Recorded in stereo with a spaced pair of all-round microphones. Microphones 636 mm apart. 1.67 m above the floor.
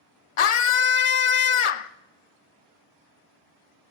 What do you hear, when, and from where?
0.4 s a scream: 55° left (ahead or behind), 0.5 m